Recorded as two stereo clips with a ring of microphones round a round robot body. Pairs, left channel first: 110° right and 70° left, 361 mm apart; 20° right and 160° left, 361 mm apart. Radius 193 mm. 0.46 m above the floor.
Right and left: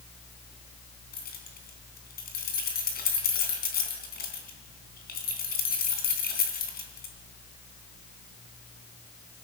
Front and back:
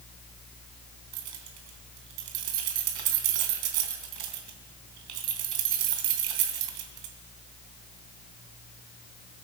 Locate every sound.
1.1 s keys jangling: straight behind, 3.5 m